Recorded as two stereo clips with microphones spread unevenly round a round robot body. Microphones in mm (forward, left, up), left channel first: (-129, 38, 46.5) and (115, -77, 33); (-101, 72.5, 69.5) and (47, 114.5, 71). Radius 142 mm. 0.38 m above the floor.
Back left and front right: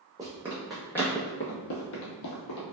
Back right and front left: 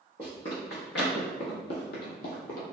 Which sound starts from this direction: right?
Running footsteps, at 0.2 s.